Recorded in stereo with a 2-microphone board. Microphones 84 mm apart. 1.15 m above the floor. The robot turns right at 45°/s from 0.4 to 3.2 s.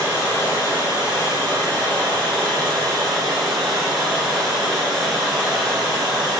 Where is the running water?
60° left, 0.9 m; by 6.4 s 175° right, 0.9 m.